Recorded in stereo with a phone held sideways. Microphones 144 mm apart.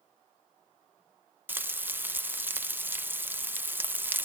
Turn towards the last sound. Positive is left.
turn(degrees=-15)  # may be behind; listen again after turning